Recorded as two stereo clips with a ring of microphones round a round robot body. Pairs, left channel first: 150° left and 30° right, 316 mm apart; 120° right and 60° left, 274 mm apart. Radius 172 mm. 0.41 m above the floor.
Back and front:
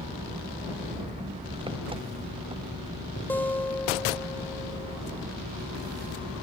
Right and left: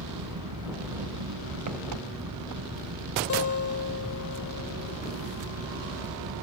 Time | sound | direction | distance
0.0 | an engine running | 45° left | ?
3.3 | a guitar | 125° right | ?